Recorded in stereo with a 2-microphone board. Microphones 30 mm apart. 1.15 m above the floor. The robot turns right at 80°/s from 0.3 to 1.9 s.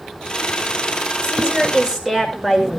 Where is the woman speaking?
70° right, 5 m; by 2.7 s 15° right, 5 m.